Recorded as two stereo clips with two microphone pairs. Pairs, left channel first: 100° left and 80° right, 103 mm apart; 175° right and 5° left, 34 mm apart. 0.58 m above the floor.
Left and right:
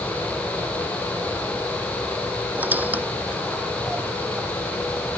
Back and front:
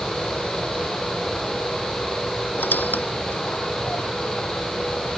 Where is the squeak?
155° right.